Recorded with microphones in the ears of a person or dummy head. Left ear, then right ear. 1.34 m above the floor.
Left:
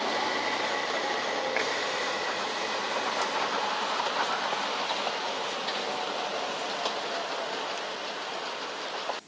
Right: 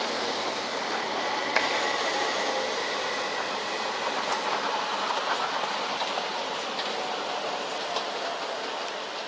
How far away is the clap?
About 4.5 m.